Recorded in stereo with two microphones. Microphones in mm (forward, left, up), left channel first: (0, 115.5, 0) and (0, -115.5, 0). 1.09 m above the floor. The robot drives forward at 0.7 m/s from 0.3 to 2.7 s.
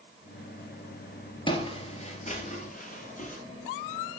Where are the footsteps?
20° left (ahead or behind), 1.1 m; by 3.4 s 35° left (ahead or behind), 1.7 m.